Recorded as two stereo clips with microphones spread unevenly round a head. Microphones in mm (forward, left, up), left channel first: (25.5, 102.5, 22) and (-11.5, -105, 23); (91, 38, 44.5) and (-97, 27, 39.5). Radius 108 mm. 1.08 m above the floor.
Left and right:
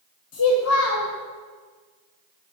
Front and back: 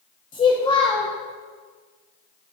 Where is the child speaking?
65° left, 0.8 m.